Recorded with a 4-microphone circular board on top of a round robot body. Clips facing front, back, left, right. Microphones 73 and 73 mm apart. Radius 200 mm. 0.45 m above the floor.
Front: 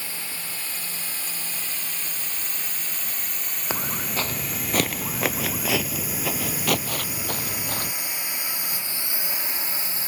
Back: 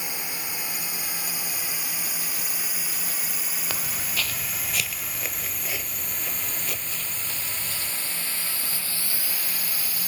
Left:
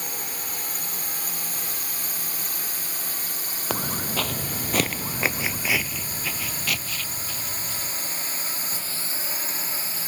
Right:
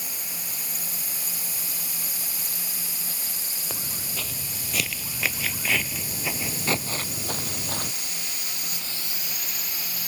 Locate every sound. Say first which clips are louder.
0.0 s a drone: back 2 dB, left 5 dB; 110° left; by 10.1 s 50° left
3.7 s footsteps: front 6 dB, left 10 dB; 65° left; by 7.9 s 50° right